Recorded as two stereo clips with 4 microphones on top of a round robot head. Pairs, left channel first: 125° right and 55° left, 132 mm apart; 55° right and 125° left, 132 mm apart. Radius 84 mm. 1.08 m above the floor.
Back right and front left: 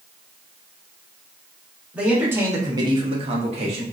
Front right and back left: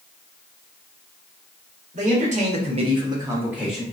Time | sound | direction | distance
1.9 | a man speaking | 135° left | 1.2 m